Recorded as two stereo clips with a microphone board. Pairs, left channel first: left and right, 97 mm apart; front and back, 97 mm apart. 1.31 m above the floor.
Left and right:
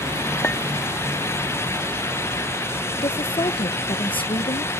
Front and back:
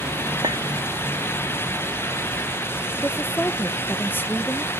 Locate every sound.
0.4 s a clink: 160° left
3.0 s a woman speaking: 70° left